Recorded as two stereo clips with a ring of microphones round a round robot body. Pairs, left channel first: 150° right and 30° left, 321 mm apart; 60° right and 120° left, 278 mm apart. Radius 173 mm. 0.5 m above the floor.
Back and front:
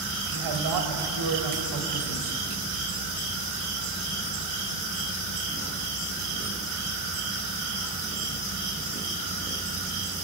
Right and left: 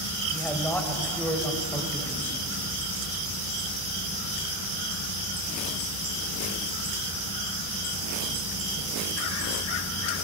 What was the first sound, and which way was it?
A man speaking, 25° left.